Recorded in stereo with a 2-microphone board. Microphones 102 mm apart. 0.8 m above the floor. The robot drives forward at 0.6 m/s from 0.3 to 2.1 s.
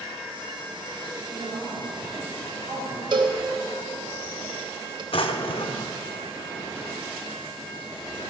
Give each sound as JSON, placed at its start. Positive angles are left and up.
{"t": 1.2, "sound": "a woman speaking", "side_deg": -45, "distance_m": 2.0}
{"t": 3.1, "sound": "a cowbell", "side_deg": -50, "distance_m": 1.2}
{"t": 5.1, "sound": "a drawer", "side_deg": 65, "distance_m": 0.6}